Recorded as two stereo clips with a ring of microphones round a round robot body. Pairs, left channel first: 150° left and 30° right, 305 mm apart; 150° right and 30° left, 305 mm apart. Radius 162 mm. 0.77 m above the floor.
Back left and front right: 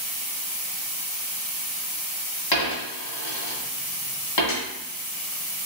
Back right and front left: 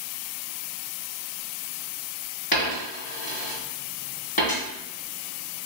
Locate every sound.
2.5 s a dropped coin: 145° left, 1.7 m